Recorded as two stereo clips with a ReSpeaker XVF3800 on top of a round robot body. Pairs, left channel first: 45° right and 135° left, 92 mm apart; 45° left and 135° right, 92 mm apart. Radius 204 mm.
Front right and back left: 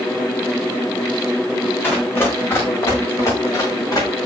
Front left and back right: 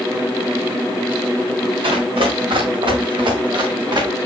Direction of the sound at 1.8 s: 115° right.